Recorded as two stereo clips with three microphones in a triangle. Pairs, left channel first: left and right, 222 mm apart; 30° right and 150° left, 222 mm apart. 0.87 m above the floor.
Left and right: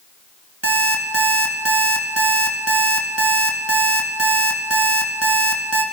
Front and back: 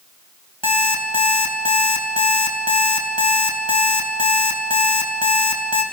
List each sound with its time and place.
0.6 s an alarm clock: 95° right, 3 m